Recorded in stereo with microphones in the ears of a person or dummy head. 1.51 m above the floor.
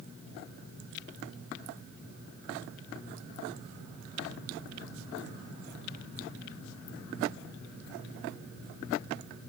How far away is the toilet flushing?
I don't hear a toilet flushing.